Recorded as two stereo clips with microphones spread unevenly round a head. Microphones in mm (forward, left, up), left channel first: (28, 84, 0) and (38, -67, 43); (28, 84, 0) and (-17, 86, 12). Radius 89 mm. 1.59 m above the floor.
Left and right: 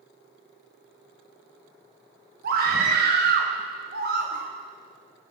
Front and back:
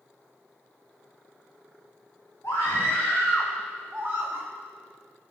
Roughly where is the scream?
Right.